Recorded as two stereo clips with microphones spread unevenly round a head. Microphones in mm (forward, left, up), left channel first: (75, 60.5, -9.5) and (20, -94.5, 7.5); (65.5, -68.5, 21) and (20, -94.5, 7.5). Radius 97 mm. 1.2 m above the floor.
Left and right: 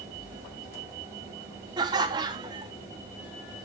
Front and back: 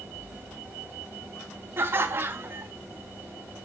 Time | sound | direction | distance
1.8 | laughter | straight behind | 0.5 m